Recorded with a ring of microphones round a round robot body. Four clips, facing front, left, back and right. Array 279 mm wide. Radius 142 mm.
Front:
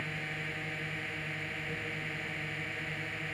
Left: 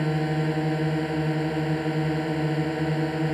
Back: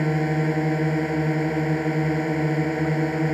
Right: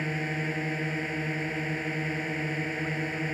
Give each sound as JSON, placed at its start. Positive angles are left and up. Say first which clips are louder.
{"t": 0.0, "sound": "a drone", "louder": "left 6 dB, back 18 dB", "azimuth_deg": 155}